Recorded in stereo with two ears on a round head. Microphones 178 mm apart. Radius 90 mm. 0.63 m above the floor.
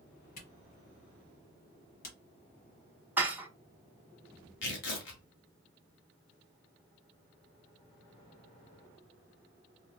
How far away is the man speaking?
I don't hear a man speaking.